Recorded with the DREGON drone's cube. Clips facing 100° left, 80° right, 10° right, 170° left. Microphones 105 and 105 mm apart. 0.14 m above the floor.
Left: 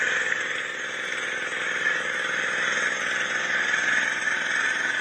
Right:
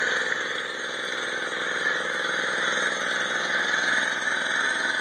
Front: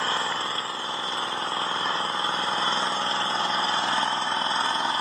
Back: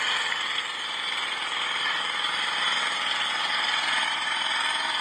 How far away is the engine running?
About 1.2 m.